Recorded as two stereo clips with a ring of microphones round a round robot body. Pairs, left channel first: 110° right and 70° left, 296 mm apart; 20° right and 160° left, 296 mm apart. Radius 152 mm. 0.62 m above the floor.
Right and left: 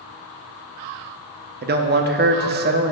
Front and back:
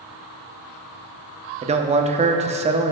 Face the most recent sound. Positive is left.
turn(degrees=100)